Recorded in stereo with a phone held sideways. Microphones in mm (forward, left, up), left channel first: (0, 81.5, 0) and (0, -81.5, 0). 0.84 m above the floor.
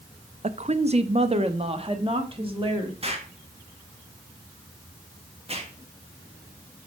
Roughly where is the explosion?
Right.